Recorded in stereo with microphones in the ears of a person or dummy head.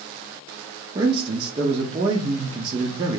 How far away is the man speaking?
About 0.5 m.